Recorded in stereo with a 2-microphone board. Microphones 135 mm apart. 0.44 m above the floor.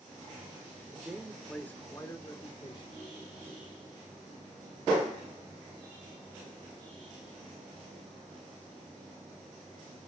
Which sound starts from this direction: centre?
A man speaking, at 0.9 s.